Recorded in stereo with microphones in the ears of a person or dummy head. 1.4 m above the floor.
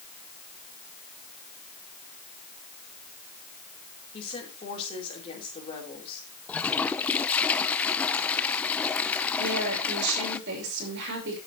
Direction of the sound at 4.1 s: 30° left (ahead or behind).